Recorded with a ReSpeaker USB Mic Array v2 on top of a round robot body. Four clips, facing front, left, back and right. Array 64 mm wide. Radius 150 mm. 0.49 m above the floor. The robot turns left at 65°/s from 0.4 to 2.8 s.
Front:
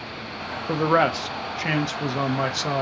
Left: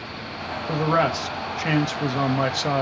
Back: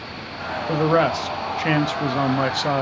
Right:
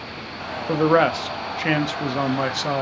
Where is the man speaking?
55° right, 0.9 m; by 2.8 s 165° left, 0.9 m.